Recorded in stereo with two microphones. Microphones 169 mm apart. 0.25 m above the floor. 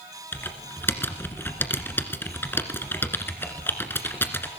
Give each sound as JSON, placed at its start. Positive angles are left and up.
{"t": 0.3, "sound": "typing on a keyboard", "side_deg": 10, "distance_m": 1.7}